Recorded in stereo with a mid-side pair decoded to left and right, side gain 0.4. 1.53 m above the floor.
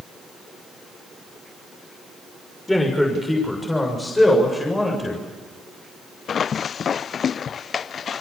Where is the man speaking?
10° left, 6.5 m; by 5.2 s 20° left, 8 m.